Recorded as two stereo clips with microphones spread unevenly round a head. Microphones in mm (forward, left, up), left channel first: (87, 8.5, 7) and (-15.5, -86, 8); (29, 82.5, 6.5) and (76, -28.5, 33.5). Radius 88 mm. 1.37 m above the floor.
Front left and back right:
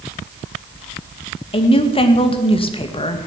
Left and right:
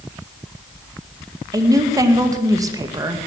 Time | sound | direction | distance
1.5 | a woman speaking | 5° right | 1.9 m